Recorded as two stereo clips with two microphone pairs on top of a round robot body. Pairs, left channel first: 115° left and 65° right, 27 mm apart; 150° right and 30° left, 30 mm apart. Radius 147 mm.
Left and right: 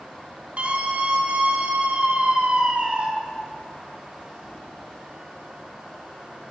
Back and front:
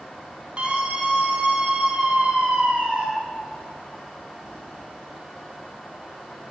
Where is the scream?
25° right, 5.5 m.